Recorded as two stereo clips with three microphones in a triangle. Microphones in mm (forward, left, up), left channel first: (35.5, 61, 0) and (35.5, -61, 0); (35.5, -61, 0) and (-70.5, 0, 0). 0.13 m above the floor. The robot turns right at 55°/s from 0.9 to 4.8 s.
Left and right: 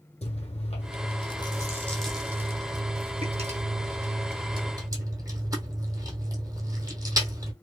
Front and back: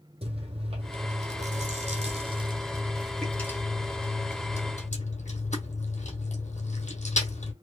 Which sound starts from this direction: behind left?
Chewing, at 0.2 s.